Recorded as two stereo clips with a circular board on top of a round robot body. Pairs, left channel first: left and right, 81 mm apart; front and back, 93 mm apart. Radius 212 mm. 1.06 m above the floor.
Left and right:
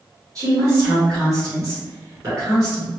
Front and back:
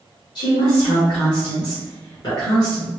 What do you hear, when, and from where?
0.3 s a woman speaking: 40° right, 1.5 m